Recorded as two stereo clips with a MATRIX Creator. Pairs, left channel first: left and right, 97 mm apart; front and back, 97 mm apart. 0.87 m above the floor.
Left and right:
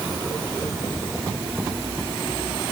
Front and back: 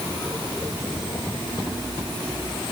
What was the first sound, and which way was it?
Only background noise.